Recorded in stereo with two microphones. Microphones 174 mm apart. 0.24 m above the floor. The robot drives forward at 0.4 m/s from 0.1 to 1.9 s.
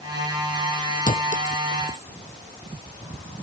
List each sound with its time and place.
1.1 s a clink: 50° left (ahead or behind); by 2.1 s 45° left (ahead or behind)